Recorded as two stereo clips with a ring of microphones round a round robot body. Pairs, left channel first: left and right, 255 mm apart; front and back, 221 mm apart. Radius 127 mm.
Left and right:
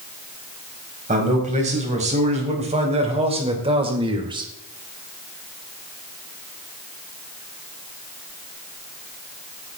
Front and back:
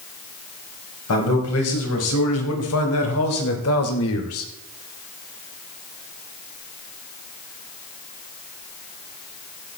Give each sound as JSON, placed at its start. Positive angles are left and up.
{"t": 1.1, "sound": "a man speaking", "azimuth_deg": -30, "distance_m": 4.5}